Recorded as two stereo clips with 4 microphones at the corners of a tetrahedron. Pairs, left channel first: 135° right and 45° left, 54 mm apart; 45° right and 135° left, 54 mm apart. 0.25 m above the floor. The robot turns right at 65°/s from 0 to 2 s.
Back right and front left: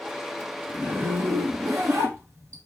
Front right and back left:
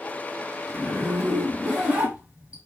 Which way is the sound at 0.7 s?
10° right.